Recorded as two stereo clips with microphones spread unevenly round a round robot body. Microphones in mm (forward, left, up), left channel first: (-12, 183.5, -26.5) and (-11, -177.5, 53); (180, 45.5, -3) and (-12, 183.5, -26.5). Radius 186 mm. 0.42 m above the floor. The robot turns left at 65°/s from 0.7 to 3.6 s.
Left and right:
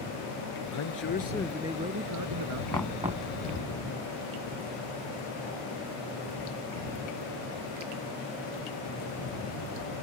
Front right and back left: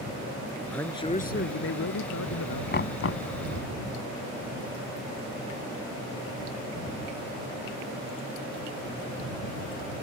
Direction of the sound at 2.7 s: 10° left.